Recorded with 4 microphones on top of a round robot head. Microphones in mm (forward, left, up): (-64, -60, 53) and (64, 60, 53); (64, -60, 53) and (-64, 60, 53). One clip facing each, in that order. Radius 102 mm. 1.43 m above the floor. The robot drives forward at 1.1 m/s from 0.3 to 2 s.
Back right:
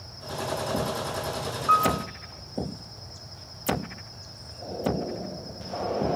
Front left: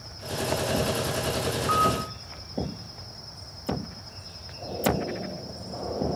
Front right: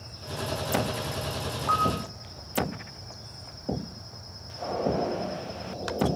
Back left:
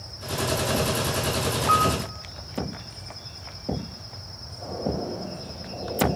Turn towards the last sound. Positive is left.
turn(degrees=-165)